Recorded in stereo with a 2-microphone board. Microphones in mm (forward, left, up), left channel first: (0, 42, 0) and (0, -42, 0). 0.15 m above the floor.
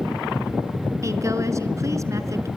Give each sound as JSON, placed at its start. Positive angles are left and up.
{"t": 1.0, "sound": "a woman speaking", "side_deg": -35, "distance_m": 2.0}